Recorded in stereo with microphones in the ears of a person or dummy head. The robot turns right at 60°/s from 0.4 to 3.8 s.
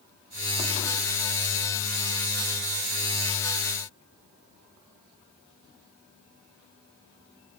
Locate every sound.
Only background noise.